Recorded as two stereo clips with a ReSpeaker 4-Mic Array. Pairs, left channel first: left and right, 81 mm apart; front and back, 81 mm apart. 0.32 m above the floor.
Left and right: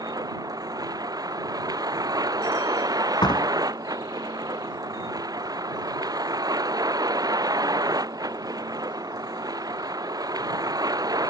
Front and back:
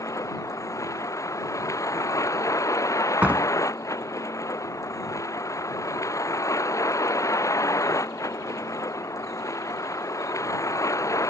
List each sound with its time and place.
0.0 s a vehicle: 50° right
3.2 s a door slam: 110° left